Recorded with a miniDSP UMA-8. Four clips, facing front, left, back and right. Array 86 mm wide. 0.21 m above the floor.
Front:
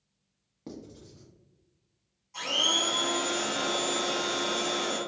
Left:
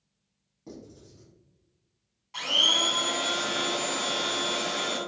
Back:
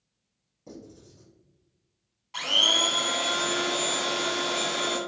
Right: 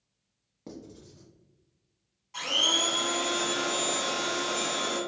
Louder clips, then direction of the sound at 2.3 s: Left 1 dB, back 2 dB; 160° left.